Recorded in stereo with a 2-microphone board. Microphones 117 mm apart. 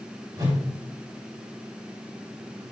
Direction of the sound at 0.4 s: 30° right (ahead or behind).